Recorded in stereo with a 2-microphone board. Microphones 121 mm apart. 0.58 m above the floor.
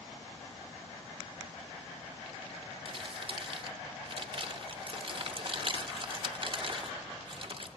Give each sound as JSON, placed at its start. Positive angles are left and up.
{"t": 2.9, "sound": "crumpling", "side_deg": -45, "distance_m": 0.8}